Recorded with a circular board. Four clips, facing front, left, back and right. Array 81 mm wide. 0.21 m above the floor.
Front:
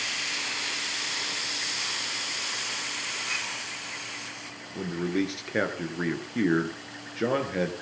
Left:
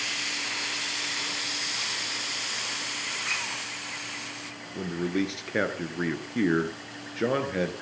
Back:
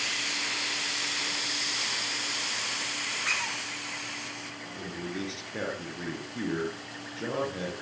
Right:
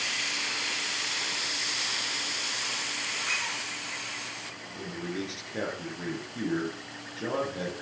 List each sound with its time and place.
3.2 s a squeak: 165° left, 9.5 m
4.8 s a man speaking: 50° left, 3.5 m